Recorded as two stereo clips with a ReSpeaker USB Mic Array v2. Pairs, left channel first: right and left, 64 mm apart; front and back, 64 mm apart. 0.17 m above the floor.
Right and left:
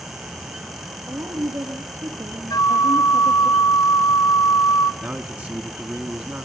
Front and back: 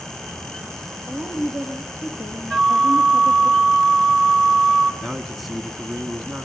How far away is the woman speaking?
About 3 m.